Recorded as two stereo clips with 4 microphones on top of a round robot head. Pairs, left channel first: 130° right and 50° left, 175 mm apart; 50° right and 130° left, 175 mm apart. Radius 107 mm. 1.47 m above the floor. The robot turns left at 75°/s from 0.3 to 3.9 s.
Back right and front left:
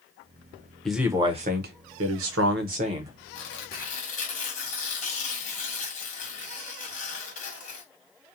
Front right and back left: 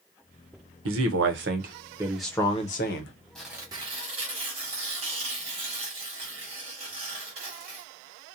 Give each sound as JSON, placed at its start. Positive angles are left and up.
{"t": 0.8, "sound": "a man speaking", "azimuth_deg": 145, "distance_m": 0.6}
{"t": 3.4, "sound": "tearing paper", "azimuth_deg": -135, "distance_m": 1.1}